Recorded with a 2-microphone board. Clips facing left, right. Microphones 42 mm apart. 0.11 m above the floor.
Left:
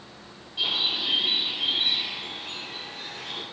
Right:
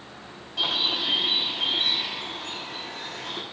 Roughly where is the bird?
Right.